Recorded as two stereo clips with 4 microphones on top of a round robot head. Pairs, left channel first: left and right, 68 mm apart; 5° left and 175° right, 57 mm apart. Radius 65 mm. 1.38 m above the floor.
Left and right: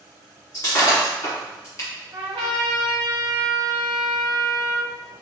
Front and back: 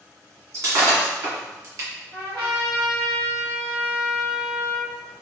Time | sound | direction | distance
0.5 | breaking glass | 145° left | 1.9 m
2.1 | a trumpet | 125° right | 1.3 m